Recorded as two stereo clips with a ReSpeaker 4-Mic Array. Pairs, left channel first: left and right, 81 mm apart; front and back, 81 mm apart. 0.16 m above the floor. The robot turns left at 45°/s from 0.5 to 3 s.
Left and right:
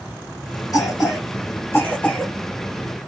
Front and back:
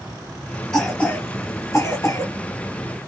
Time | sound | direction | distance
0.7 | a cough | 85° left | 1.5 m